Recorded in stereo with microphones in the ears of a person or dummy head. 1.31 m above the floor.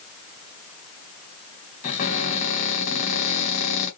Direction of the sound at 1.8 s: 45° left (ahead or behind).